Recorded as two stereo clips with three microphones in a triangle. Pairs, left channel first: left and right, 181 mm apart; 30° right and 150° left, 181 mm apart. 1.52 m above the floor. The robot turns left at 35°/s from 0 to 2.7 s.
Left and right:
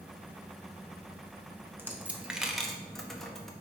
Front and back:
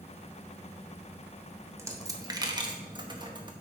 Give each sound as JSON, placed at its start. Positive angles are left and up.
{"t": 1.8, "sound": "a dropped coin", "azimuth_deg": -155, "distance_m": 0.9}